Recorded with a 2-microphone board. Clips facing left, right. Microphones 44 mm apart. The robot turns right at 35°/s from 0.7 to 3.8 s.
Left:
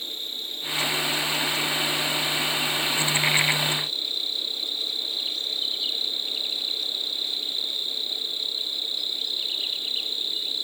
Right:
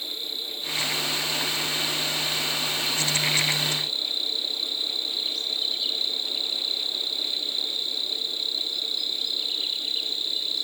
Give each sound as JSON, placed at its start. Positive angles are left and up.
{"t": 0.0, "sound": "an insect", "azimuth_deg": 45, "distance_m": 1.7}